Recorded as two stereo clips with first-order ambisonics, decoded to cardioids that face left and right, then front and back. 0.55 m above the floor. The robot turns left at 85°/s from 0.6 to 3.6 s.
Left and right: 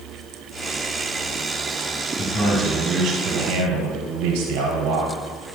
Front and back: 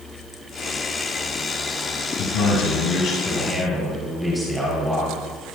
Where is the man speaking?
30° left, 4.5 m; by 5.1 s 90° right, 4.5 m.